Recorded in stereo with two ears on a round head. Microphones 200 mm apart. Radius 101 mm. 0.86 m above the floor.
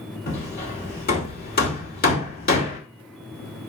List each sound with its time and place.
0.3 s hammering: 40° left (ahead or behind), 2.5 m